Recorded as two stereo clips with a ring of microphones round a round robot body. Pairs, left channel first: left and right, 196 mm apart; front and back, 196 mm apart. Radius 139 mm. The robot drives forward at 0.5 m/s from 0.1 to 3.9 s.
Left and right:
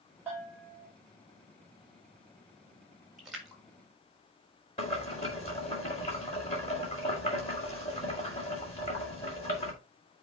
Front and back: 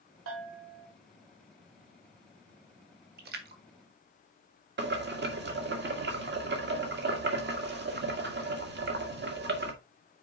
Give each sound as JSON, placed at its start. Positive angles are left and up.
{"t": 0.3, "sound": "a bell", "azimuth_deg": -175, "distance_m": 3.0}
{"t": 3.2, "sound": "a splash", "azimuth_deg": 180, "distance_m": 1.4}
{"t": 4.8, "sound": "boiling", "azimuth_deg": 155, "distance_m": 1.8}